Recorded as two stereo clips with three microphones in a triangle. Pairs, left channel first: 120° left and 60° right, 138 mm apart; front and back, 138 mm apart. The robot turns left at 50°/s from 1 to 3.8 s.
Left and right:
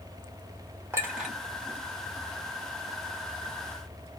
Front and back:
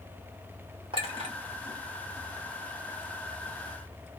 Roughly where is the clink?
Behind right.